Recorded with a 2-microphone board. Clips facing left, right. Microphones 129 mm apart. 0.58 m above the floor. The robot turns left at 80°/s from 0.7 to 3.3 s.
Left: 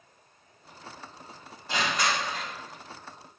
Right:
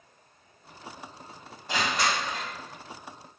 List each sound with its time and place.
1.7 s crushing: 20° right, 1.5 m; by 2.5 s 80° right, 1.5 m